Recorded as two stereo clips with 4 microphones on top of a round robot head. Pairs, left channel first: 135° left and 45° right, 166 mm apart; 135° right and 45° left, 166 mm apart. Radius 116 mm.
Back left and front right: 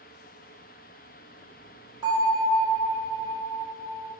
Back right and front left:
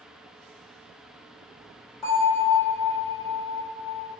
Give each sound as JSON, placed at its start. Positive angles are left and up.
{"t": 2.0, "sound": "a bell", "azimuth_deg": -75, "distance_m": 1.7}